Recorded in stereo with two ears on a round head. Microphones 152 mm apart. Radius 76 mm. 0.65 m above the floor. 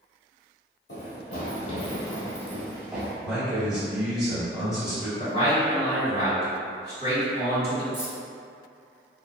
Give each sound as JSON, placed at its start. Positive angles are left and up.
{"t": 0.9, "sound": "running footsteps", "side_deg": 60, "distance_m": 1.2}
{"t": 3.2, "sound": "a man speaking", "side_deg": -5, "distance_m": 1.6}
{"t": 5.2, "sound": "a man speaking", "side_deg": 40, "distance_m": 1.6}
{"t": 7.9, "sound": "keys jangling", "side_deg": -25, "distance_m": 1.4}